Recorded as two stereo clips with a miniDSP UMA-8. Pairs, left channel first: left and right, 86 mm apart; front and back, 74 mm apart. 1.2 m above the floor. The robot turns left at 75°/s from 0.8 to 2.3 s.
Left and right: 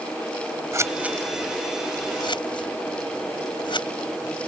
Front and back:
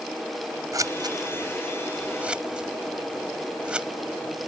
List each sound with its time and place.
0.7 s scissors: 145° right; by 3.9 s 105° left